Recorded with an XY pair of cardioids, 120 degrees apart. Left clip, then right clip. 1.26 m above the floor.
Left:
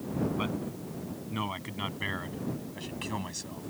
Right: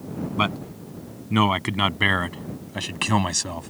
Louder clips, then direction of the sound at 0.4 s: Right 9 dB; 65° right.